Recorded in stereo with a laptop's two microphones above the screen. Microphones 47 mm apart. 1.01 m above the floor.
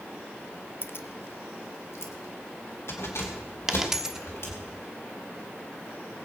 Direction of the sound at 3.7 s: 5° right (ahead or behind).